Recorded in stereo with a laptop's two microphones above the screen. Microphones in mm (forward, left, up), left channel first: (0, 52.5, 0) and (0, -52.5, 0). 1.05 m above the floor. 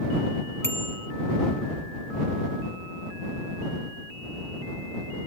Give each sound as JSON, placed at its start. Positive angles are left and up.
{"t": 0.6, "sound": "a bicycle bell", "side_deg": 25}